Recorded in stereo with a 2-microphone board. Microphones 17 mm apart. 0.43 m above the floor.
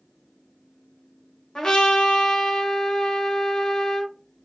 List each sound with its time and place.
1.6 s a trumpet: 45° left (ahead or behind), 1.3 m